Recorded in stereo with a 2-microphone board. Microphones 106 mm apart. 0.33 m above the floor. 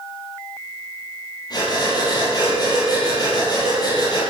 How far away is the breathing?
About 8 m.